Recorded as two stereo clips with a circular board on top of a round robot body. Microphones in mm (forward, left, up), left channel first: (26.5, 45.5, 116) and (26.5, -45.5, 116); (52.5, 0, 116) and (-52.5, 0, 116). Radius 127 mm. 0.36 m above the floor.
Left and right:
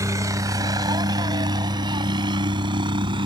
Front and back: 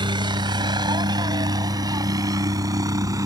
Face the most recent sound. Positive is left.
turn(degrees=-120)